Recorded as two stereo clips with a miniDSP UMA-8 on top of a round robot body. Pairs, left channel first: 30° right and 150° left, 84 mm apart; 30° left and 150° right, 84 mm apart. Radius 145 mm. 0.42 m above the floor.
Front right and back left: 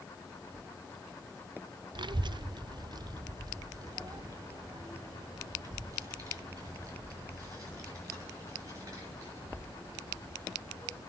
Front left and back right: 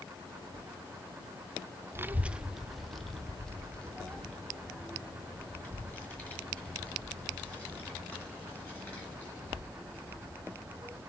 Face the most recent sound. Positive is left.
turn(degrees=100)